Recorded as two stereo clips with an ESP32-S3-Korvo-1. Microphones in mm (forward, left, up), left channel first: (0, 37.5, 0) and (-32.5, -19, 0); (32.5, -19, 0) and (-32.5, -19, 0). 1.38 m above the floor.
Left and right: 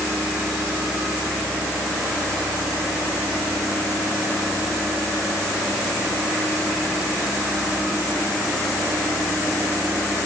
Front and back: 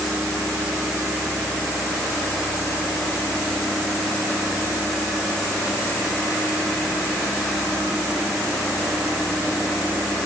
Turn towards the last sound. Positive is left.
No sound to turn to.